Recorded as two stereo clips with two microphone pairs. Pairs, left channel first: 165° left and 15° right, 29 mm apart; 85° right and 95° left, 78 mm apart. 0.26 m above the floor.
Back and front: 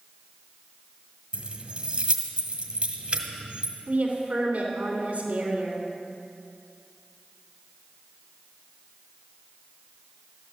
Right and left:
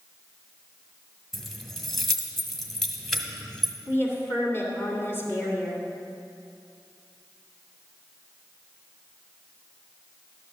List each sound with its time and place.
1.3 s keys jangling: 5° left, 1.2 m
3.9 s a woman speaking: 35° right, 2.5 m